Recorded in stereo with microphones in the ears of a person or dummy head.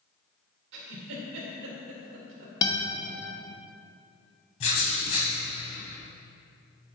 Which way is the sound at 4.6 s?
40° left (ahead or behind).